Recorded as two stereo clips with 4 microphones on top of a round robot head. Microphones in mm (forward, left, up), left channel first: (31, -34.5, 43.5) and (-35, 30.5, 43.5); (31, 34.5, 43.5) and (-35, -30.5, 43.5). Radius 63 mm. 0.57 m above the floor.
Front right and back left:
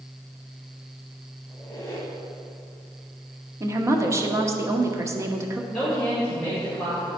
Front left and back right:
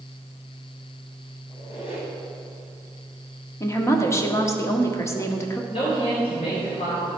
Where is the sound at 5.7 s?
45° left, 3 m.